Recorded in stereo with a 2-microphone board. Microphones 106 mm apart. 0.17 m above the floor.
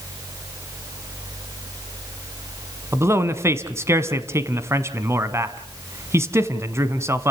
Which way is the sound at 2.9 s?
25° right (ahead or behind).